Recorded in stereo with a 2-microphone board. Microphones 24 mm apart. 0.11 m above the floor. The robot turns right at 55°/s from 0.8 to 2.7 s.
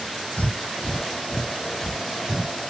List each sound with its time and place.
0.4 s breathing: 70° left (ahead or behind), 0.7 m; by 2.5 s 25° right (ahead or behind), 0.7 m